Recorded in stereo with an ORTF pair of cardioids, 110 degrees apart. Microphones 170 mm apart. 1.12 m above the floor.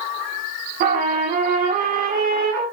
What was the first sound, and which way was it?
A trumpet, 60° right.